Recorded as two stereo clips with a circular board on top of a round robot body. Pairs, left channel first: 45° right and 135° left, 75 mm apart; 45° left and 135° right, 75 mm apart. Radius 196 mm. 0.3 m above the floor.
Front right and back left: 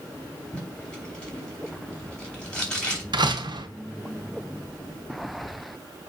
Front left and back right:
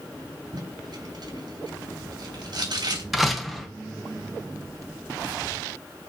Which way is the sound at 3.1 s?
135° left.